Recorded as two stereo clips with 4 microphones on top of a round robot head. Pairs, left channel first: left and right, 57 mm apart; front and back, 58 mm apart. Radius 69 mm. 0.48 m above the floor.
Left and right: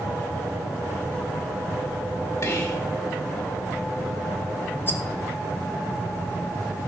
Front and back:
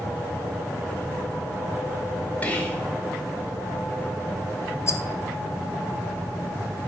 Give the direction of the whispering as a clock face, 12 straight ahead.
10 o'clock.